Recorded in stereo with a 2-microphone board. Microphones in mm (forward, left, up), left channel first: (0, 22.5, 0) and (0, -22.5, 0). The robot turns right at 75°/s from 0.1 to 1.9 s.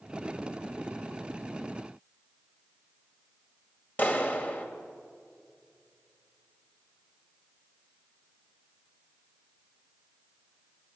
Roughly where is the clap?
Left.